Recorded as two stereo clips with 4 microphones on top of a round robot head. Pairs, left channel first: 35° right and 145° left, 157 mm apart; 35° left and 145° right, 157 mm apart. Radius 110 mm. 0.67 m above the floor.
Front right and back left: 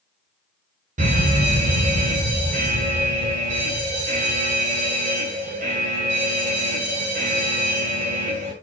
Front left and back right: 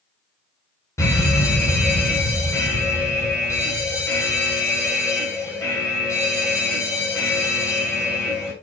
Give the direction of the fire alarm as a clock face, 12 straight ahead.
8 o'clock.